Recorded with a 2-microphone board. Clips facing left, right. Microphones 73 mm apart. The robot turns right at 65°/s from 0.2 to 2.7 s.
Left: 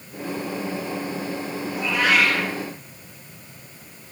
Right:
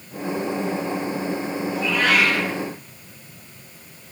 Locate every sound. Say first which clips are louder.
1.7 s a cat meowing: even; 155° left, 4.5 m; by 2.5 s 155° right, 4.5 m